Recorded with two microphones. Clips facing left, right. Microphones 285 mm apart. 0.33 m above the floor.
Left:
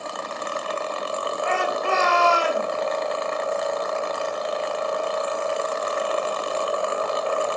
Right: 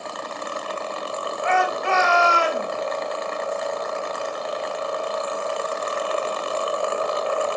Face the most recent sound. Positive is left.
turn(degrees=40)  # may be behind; listen again after turning